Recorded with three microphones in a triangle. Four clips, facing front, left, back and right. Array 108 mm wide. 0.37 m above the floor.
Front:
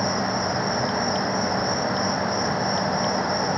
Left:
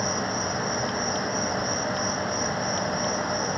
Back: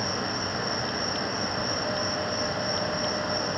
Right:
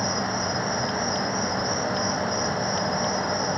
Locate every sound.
0.0 s an insect: 15° right